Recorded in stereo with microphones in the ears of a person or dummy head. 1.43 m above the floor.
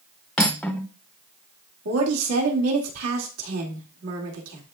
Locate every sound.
0.4 s cutlery clinking: centre (ahead or behind), 0.7 m
1.9 s a woman speaking: 85° right, 2.5 m